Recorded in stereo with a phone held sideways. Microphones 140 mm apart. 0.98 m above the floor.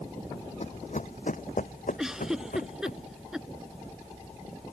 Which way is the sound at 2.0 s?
5° right (ahead or behind).